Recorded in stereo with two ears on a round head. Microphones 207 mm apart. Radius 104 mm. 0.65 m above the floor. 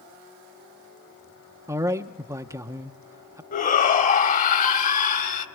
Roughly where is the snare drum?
I don't hear a snare drum.